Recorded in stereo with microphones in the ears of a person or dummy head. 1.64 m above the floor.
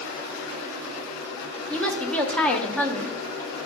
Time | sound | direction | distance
1.7 | a woman speaking | 10° left (ahead or behind) | 0.6 m